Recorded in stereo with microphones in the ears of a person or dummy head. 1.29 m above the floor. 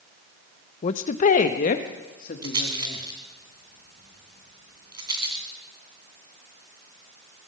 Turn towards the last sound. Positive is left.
turn(degrees=-30)  # may be behind; listen again after turning